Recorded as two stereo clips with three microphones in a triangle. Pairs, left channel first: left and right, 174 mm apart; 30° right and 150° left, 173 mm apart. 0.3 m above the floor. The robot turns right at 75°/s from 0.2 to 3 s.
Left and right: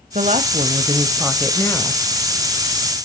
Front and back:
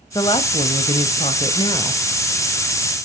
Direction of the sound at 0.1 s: 85° right.